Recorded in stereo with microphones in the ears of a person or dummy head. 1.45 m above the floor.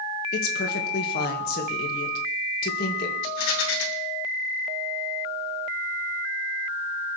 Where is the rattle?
85° left, 3.5 m.